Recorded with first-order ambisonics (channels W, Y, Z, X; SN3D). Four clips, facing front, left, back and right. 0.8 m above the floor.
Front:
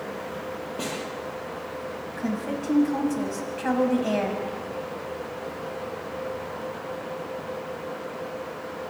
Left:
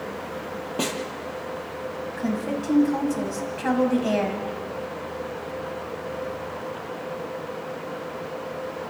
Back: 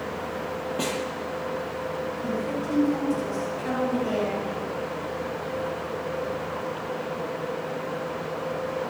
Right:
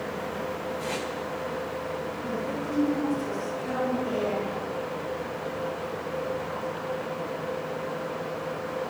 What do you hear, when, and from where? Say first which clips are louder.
0.8 s a snare drum: left 8 dB, back 3 dB; 105° left, 7.5 m
2.2 s a woman speaking: left 4 dB, front 3 dB; 60° left, 6 m